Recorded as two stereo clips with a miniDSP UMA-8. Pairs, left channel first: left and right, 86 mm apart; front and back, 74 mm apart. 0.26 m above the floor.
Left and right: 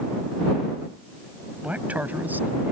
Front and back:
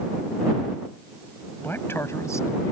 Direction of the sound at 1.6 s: 30° right.